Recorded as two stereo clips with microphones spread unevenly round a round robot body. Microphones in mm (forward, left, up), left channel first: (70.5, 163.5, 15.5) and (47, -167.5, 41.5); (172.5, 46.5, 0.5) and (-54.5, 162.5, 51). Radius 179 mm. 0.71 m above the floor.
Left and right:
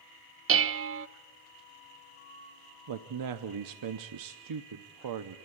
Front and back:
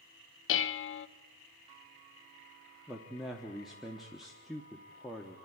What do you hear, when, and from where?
0.5 s dishes clattering: 45° right, 0.6 m
2.9 s a man speaking: 110° right, 0.8 m